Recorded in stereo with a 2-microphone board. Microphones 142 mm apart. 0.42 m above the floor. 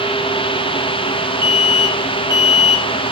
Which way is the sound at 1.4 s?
35° left (ahead or behind).